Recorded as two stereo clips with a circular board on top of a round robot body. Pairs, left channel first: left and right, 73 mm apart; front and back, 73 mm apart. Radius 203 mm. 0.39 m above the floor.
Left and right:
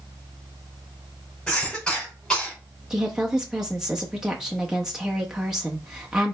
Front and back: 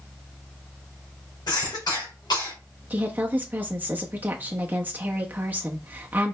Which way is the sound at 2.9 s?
160° right.